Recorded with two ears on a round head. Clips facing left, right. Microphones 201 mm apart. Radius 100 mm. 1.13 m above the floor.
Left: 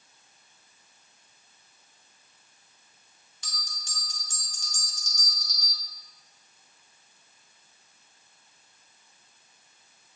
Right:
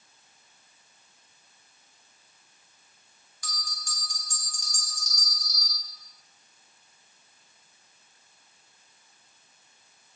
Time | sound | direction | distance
3.4 | a bell | 20° left (ahead or behind) | 1.1 m